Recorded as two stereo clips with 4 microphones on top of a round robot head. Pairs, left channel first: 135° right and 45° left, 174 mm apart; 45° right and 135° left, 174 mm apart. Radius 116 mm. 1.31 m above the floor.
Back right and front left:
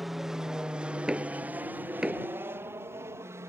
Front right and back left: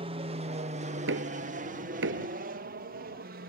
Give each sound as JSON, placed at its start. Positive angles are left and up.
{"t": 0.0, "sound": "an aircraft", "azimuth_deg": 135}
{"t": 1.1, "sound": "knocking", "azimuth_deg": 130}